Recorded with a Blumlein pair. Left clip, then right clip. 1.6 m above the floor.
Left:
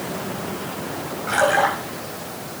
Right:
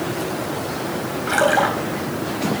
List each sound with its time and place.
1.3 s a splash: 15° right, 4 m